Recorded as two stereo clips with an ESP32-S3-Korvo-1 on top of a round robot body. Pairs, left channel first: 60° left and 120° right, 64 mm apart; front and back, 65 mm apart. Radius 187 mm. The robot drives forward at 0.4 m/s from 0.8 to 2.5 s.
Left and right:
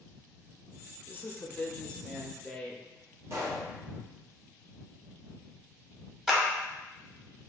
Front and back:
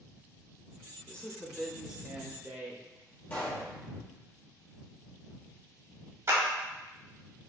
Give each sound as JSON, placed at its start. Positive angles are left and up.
{"t": 1.1, "sound": "a woman speaking", "azimuth_deg": 45, "distance_m": 0.8}
{"t": 3.3, "sound": "a pop", "azimuth_deg": -65, "distance_m": 1.0}
{"t": 6.3, "sound": "a clap", "azimuth_deg": 155, "distance_m": 1.3}